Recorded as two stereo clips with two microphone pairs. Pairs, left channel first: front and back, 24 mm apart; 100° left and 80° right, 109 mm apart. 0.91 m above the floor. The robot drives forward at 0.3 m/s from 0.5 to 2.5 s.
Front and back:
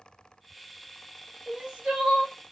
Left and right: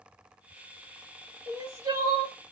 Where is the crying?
135° right, 2.5 m.